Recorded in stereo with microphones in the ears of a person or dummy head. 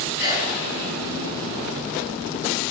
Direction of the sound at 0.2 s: 30° left (ahead or behind).